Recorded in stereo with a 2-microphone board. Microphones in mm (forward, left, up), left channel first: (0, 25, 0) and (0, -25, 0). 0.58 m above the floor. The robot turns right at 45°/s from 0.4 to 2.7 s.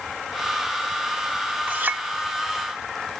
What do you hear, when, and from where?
1.7 s a clink: 45° right (ahead or behind), 2 m; by 2.0 s 55° right (ahead or behind), 2 m